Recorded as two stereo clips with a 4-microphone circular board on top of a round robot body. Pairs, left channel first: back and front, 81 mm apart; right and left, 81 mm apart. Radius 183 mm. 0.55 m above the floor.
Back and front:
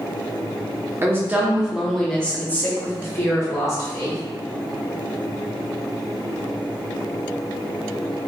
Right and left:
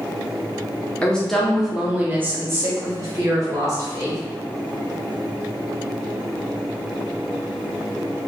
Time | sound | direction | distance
1.0 | a woman speaking | 25° right | 0.9 m